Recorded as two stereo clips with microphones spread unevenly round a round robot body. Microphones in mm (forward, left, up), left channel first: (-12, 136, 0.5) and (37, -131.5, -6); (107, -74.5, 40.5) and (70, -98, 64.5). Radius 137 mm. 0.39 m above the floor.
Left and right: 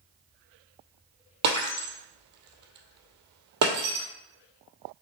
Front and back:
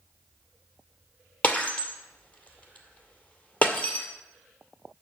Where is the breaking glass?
25° right, 2.5 m.